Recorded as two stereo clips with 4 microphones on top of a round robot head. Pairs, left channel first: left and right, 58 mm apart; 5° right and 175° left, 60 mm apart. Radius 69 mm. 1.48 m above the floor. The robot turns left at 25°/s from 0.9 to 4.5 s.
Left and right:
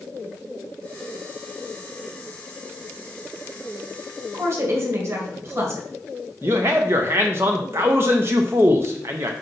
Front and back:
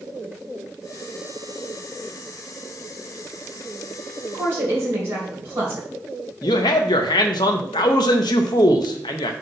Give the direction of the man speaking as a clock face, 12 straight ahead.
1 o'clock.